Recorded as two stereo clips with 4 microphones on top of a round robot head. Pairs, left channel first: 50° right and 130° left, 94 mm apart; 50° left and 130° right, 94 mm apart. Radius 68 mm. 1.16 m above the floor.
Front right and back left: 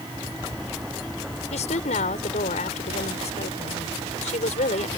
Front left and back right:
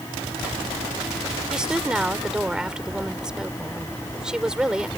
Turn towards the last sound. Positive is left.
turn(degrees=-50)